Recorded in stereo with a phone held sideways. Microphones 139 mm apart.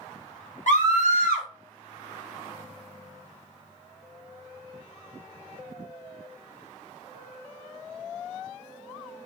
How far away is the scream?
About 1.3 m.